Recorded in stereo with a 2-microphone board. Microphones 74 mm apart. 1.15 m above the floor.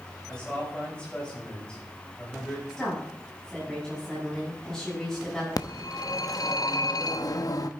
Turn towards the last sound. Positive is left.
turn(degrees=55)  # may be behind; listen again after turning